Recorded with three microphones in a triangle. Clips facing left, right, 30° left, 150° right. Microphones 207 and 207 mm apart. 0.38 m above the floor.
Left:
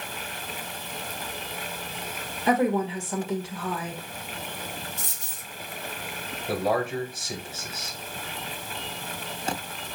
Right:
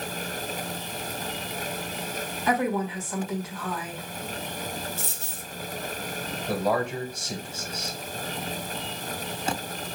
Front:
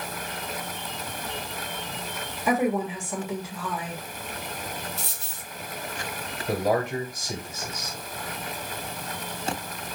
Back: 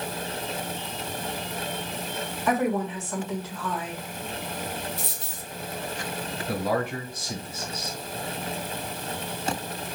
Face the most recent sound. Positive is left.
turn(degrees=5)